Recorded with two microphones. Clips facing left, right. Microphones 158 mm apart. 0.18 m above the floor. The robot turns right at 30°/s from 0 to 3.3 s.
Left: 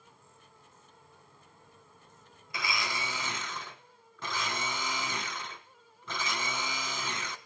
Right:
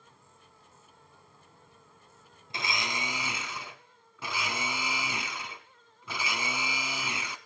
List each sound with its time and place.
2.5 s a blender: 25° right (ahead or behind), 1.7 m; by 7.4 s 10° right (ahead or behind), 1.7 m